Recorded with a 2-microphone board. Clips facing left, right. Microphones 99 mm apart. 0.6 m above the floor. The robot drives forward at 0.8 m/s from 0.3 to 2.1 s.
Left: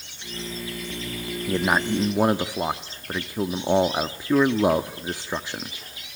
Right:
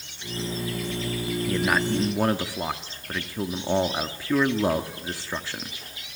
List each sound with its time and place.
1.5 s a man speaking: 20° left (ahead or behind), 0.6 m